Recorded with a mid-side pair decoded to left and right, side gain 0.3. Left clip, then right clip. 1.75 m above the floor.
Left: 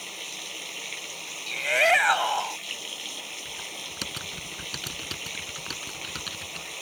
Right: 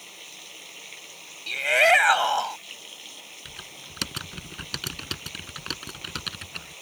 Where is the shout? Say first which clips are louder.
Right 3 dB; 30° right.